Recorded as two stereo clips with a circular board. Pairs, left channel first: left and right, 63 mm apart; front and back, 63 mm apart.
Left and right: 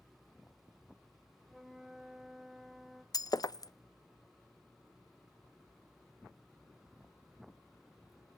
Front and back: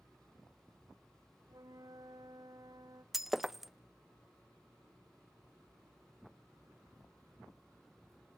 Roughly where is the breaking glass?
Left.